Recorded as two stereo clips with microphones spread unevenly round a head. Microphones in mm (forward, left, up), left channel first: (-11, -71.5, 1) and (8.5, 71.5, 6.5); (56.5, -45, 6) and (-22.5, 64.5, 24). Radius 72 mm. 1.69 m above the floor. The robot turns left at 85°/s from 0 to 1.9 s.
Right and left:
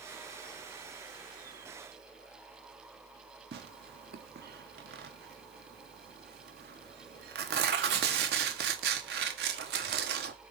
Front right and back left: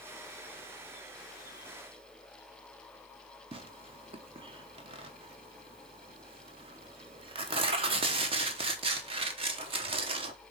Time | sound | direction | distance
3.5 | tearing paper | 80° left | 1.1 m